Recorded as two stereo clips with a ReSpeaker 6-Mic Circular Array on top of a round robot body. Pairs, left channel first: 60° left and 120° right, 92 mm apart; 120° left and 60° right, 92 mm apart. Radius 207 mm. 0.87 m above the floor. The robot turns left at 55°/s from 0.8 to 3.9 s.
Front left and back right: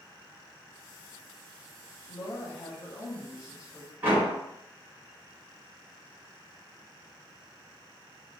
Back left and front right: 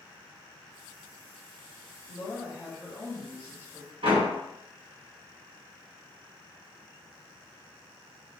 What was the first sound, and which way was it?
A woman speaking, 90° left.